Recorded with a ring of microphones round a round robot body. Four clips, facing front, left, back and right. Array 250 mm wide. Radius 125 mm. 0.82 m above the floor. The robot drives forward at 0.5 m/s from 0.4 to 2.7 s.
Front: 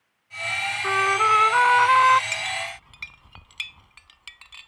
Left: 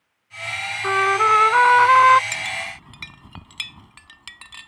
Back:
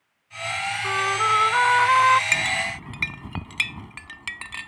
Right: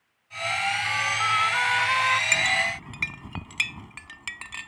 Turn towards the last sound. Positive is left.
turn(degrees=-160)